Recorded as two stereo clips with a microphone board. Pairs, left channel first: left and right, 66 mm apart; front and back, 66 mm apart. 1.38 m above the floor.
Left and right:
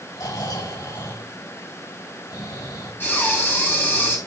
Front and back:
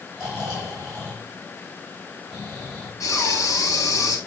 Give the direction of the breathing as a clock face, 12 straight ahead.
11 o'clock.